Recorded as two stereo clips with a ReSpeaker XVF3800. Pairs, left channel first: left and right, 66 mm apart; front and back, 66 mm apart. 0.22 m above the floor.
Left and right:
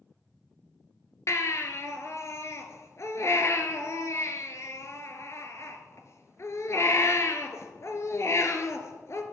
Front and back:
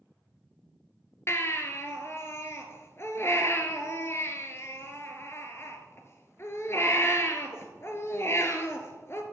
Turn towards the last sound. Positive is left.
turn(degrees=45)